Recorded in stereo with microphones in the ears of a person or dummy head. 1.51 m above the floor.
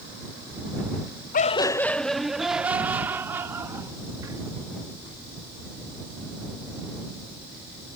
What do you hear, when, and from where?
1.3 s laughter: 40° left (ahead or behind); by 4.4 s 15° right (ahead or behind)